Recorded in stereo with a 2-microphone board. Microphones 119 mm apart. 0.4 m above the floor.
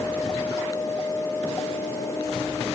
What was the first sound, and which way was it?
Only background noise.